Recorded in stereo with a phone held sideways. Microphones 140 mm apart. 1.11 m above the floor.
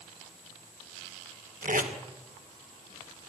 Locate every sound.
1.6 s tape being pulled: 75° right (ahead or behind), 2 m